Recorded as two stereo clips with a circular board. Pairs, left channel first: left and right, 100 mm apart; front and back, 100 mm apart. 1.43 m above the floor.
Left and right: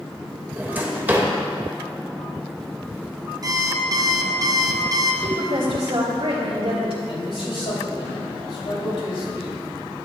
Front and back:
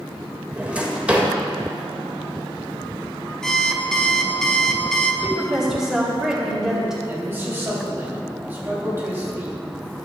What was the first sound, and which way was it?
A drawer, 130° right.